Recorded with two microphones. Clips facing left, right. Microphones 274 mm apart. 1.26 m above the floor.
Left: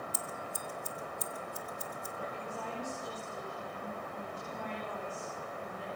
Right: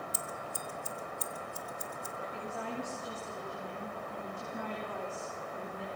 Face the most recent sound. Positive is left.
turn(degrees=-70)  # may be behind; listen again after turning